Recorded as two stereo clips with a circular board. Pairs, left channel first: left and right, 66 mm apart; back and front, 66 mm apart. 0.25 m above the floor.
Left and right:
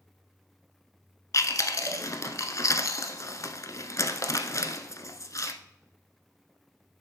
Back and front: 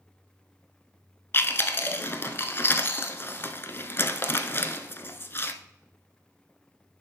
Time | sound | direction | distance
1.3 | chewing | 125° left | 0.7 m